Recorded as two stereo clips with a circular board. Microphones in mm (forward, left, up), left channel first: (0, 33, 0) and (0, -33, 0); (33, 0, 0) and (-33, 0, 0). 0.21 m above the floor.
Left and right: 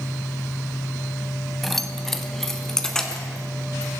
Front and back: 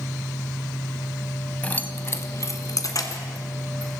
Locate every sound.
1.6 s keys jangling: 5° left, 0.9 m; by 3.9 s 10° left, 2.5 m